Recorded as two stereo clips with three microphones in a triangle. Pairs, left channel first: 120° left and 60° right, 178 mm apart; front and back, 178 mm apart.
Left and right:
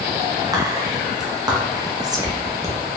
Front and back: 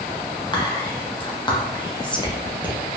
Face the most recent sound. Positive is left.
turn(degrees=-20)